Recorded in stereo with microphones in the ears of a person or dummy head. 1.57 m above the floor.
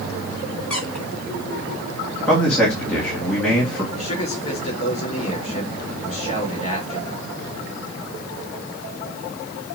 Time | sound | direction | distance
0.7 | a squeak | 15° left (ahead or behind) | 3 m
2.3 | a man speaking | 15° left (ahead or behind) | 2 m
3.9 | a man speaking | 45° left (ahead or behind) | 3.5 m